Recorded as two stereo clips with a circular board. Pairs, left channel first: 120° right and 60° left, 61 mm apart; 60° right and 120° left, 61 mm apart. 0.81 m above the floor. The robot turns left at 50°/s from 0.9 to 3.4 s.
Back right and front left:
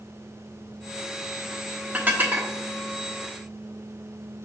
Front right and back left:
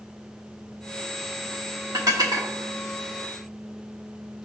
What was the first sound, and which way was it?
Dishes clattering, 125° left.